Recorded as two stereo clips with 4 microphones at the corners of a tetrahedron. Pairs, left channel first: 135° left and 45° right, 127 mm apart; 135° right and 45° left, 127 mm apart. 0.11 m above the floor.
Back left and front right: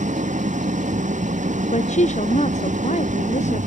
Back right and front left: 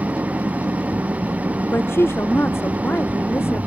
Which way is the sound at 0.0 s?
35° right.